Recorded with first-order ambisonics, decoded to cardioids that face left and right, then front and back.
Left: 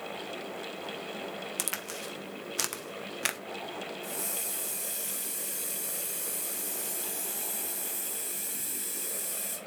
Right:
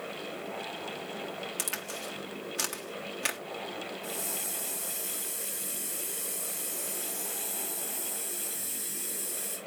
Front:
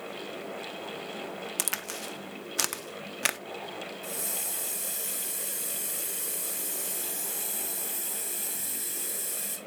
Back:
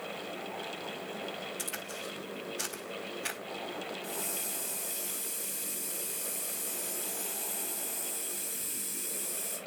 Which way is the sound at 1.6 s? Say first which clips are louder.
Even, front 4 dB; 15° left.